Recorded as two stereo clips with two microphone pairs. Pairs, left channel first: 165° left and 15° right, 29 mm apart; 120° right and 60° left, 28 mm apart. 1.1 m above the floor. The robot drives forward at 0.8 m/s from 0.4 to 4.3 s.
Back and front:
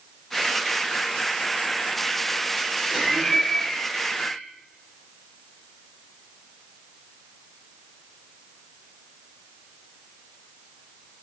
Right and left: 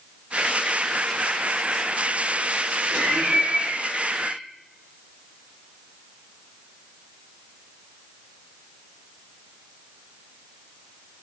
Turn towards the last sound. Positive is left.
turn(degrees=90)